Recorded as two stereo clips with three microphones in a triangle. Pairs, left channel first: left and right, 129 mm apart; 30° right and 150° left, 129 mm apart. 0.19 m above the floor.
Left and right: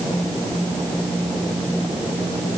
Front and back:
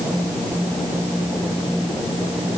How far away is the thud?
I don't hear a thud.